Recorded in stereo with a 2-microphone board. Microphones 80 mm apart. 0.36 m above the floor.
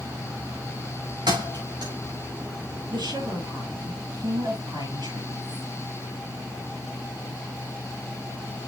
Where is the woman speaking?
65° right (ahead or behind), 6 m.